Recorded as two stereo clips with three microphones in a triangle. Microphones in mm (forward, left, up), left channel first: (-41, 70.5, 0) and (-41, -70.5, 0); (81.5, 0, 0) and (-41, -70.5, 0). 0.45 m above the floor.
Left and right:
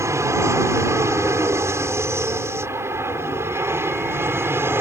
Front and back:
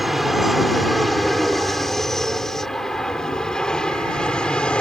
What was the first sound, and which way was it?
An aircraft, 65° right.